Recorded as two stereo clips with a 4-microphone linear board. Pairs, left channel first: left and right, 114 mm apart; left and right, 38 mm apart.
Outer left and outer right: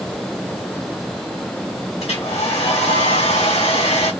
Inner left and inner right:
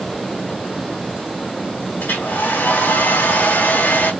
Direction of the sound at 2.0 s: 70° left (ahead or behind).